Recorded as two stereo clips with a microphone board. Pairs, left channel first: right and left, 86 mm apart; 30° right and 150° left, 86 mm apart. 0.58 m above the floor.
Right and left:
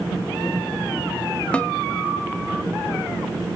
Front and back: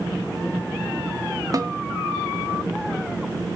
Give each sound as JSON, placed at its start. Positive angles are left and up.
{"t": 1.5, "sound": "a snare drum", "azimuth_deg": -165, "distance_m": 1.3}